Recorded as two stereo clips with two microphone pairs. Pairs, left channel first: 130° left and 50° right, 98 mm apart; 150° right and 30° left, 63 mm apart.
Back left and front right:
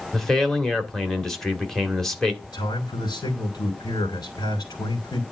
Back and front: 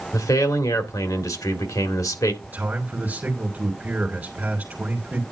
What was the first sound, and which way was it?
A man speaking, 145° right.